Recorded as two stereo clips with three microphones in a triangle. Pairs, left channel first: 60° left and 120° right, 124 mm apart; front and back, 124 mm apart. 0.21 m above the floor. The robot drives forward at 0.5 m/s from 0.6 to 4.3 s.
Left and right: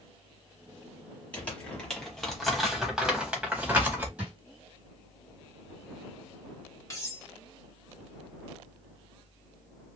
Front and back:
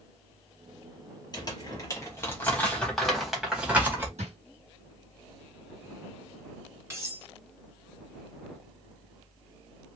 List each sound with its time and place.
1.3 s crumpling: 10° right, 1.6 m; by 4.1 s 155° right, 1.3 m
4.2 s a drawer: 160° left, 2.5 m
6.9 s cutlery clinking: 120° left, 1.4 m